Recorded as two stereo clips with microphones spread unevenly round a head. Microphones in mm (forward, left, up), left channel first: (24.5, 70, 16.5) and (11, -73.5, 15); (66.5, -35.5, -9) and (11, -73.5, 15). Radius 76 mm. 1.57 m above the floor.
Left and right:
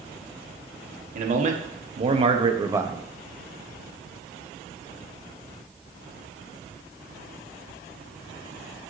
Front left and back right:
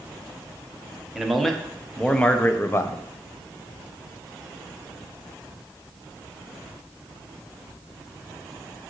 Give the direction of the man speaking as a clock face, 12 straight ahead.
2 o'clock.